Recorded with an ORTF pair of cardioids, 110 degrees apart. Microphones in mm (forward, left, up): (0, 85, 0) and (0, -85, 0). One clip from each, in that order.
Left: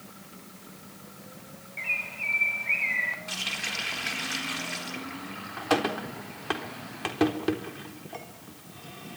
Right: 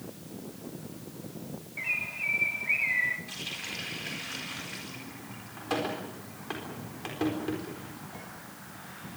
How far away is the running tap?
About 4 m.